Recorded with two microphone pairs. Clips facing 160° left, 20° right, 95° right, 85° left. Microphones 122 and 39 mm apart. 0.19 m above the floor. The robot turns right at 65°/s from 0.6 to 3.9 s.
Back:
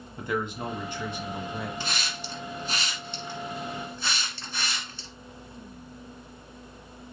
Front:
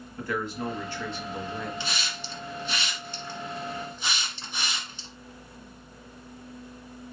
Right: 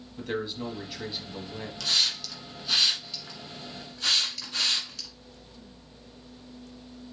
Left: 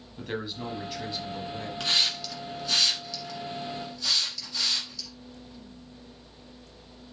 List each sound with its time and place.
0.2 s a man speaking: 155° left, 1.1 m; by 1.7 s 130° right, 1.1 m
1.8 s a hiss: 135° left, 1.4 m; by 5.1 s 90° right, 1.4 m